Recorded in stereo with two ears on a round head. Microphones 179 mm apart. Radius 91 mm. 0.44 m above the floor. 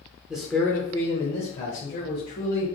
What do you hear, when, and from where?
0.3 s a man speaking: 5° right (ahead or behind), 0.8 m; by 2.7 s 45° left (ahead or behind), 1.8 m